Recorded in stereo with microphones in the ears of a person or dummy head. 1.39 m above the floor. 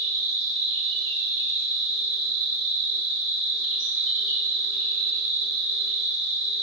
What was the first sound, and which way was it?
An insect, 65° right (ahead or behind).